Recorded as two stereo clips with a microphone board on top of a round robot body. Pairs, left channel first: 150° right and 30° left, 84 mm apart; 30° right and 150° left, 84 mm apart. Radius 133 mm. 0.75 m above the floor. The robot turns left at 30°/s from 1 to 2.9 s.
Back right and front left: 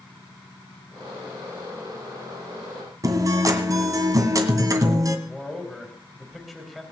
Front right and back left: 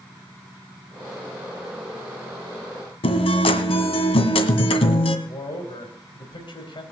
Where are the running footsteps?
No running footsteps in this recording.